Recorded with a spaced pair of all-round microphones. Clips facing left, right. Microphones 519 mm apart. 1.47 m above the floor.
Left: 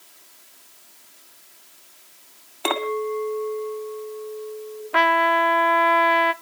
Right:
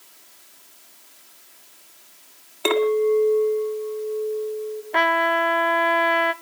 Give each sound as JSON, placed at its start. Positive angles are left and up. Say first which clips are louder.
{"t": 2.6, "sound": "a clink", "louder": "right 7 dB", "side_deg": 15, "distance_m": 2.5}
{"t": 4.9, "sound": "a trumpet", "louder": "left 2 dB", "side_deg": 30, "distance_m": 0.7}